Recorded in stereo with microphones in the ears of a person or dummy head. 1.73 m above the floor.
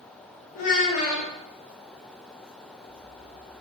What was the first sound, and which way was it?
A child speaking, 45° left (ahead or behind).